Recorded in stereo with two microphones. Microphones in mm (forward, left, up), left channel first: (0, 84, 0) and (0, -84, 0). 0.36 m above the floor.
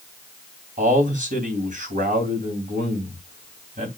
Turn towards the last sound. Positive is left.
turn(degrees=-50)  # may be behind; listen again after turning